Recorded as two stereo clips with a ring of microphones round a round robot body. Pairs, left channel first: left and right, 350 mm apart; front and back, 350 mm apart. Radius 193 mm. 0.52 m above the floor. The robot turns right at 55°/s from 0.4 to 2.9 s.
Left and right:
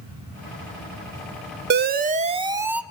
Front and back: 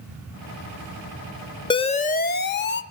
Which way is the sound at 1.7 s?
65° right.